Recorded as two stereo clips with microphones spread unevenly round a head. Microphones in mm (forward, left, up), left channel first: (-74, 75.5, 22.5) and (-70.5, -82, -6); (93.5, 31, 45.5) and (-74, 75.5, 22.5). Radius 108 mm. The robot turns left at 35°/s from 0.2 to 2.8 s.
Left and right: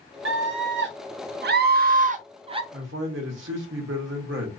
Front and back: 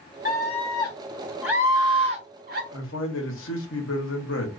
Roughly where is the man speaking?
Ahead right.